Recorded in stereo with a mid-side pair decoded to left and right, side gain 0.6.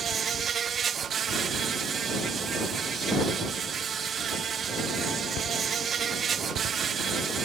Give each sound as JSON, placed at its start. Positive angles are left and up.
{"t": 0.0, "sound": "an insect", "azimuth_deg": -40}